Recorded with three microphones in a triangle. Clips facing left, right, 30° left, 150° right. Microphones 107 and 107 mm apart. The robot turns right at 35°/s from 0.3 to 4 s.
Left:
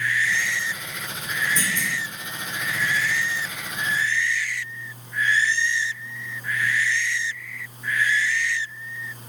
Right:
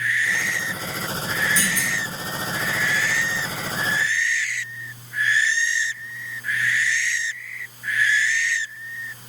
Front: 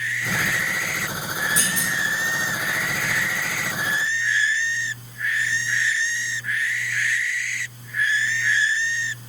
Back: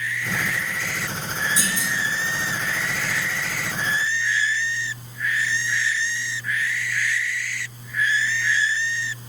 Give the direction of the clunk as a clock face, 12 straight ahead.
11 o'clock.